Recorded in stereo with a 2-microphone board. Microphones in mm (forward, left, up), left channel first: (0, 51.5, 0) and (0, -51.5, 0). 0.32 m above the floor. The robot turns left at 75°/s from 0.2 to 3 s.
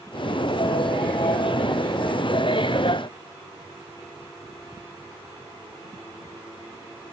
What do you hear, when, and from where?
Only background noise.